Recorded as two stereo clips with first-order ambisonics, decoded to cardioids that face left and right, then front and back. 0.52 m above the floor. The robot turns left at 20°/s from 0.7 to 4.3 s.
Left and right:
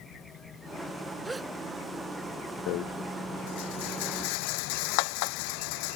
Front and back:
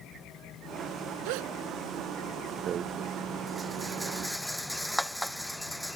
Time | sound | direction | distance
1.2 | a gasp | 170° right | ?
2.7 | a rattle | 120° left | ?